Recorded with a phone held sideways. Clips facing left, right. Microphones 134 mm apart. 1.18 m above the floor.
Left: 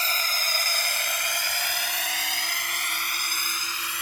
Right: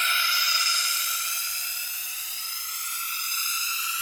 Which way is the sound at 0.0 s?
40° left (ahead or behind).